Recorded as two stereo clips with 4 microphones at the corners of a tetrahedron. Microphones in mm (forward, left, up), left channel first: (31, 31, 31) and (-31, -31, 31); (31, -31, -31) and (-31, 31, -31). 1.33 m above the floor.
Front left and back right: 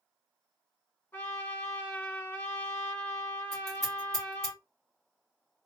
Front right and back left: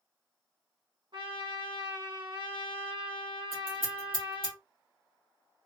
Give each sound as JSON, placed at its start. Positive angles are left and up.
{"t": 1.1, "sound": "a trumpet", "azimuth_deg": 115, "distance_m": 1.5}
{"t": 3.5, "sound": "scissors", "azimuth_deg": 130, "distance_m": 2.0}